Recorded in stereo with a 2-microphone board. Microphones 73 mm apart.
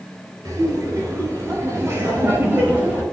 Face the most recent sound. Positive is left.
turn(degrees=-30)  # may be behind; listen again after turning